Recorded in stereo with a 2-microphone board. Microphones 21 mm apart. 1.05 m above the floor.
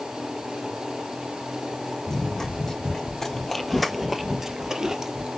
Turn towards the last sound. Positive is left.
turn(degrees=-30)  # may be behind; listen again after turning